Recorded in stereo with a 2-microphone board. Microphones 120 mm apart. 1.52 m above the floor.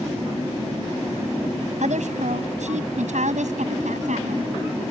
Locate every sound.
1.8 s a woman speaking: 80° right; by 4.5 s 85° right